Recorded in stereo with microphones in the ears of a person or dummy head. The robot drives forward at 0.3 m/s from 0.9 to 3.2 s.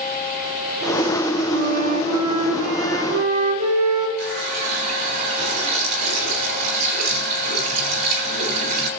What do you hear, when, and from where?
1.5 s a flute: 55° right (ahead or behind), 3.5 m; by 4.1 s 50° right (ahead or behind), 4 m
4.2 s a running tap: 55° right (ahead or behind), 2.5 m